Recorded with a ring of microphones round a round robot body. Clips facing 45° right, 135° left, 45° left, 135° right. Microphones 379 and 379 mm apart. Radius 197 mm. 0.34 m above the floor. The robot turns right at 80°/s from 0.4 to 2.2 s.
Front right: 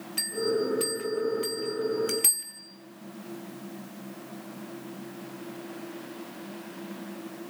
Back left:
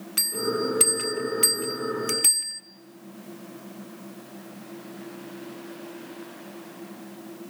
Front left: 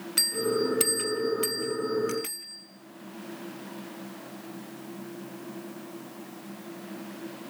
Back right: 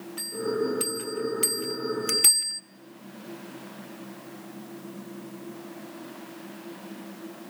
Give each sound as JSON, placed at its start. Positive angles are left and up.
{"t": 0.2, "sound": "a bell", "azimuth_deg": 80, "distance_m": 1.8}